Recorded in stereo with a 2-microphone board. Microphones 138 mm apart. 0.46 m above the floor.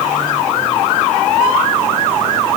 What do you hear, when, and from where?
Only background noise.